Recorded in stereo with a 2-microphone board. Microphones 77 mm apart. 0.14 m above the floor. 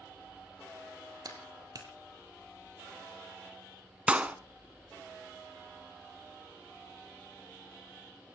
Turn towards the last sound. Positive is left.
turn(degrees=-15)  # may be behind; listen again after turning